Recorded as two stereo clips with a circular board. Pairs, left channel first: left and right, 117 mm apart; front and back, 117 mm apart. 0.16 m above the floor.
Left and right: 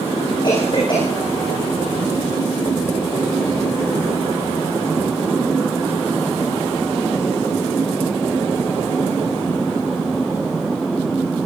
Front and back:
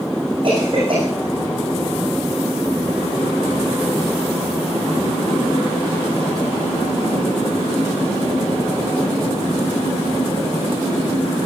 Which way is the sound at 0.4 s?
135° left.